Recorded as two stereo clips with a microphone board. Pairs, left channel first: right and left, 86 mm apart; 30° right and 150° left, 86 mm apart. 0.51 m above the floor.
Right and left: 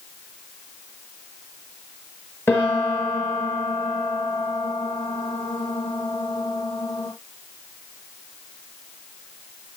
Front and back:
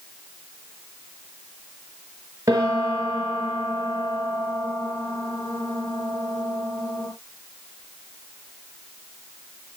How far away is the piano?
About 6.5 m.